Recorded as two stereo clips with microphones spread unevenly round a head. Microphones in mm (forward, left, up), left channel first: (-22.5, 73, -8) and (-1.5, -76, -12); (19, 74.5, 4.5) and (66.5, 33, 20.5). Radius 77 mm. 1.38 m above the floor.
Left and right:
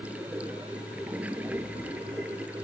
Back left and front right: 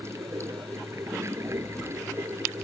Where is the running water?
Straight ahead.